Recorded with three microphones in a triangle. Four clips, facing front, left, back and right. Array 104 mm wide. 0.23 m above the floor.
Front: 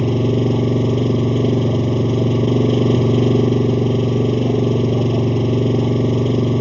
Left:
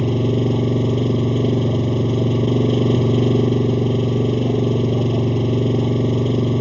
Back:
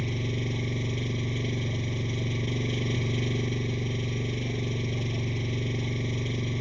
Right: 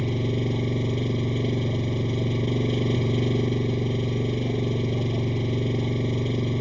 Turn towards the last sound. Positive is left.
turn(degrees=30)